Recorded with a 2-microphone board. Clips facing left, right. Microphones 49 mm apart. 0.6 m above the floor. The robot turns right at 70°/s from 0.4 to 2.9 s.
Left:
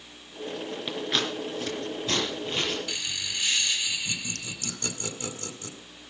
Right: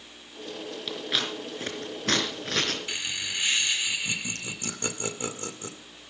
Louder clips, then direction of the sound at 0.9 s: Left 1 dB; 15° left (ahead or behind).